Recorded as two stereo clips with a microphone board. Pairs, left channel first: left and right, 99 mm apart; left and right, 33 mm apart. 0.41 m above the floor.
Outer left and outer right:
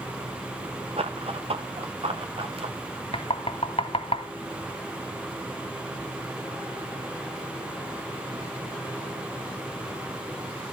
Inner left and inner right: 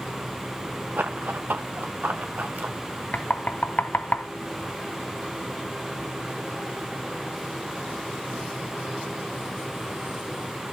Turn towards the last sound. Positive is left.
turn(degrees=75)  # may be behind; listen again after turning